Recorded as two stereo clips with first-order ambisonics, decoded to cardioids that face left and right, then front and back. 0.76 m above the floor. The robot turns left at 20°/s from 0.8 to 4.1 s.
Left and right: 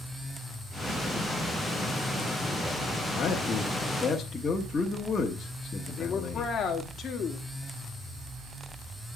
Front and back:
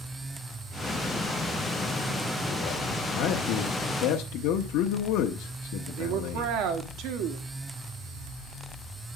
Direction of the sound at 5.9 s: 155° left.